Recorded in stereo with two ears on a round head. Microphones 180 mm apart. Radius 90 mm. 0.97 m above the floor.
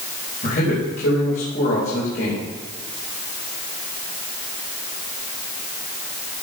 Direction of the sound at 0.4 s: 50° left (ahead or behind).